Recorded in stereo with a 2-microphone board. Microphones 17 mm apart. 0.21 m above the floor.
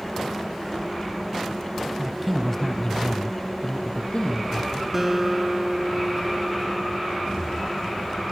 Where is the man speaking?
15° right (ahead or behind), 1.3 m; by 4.8 s 70° left (ahead or behind), 3 m.